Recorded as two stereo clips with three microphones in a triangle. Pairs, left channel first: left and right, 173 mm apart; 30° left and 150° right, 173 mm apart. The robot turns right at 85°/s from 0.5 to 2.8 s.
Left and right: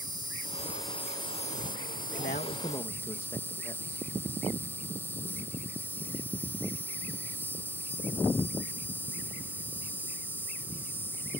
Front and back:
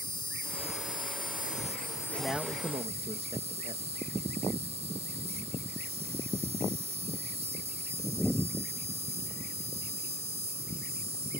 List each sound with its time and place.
0.0 s an insect: 30° right; by 11.4 s 165° left
2.2 s a man speaking: 105° left; by 4.1 s 155° left